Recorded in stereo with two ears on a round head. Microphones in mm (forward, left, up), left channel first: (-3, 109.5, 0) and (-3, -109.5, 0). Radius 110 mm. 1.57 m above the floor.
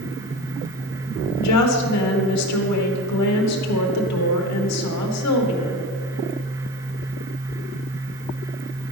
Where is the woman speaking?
75° left (ahead or behind), 1.4 m.